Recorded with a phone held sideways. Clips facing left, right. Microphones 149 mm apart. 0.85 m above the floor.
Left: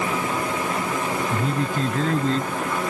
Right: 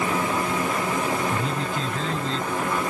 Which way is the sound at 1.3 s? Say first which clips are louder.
Left 2 dB; 45° left (ahead or behind).